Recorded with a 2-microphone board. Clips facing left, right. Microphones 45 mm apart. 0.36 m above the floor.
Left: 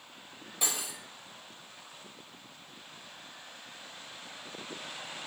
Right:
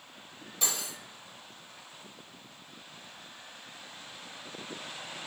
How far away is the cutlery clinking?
About 0.7 m.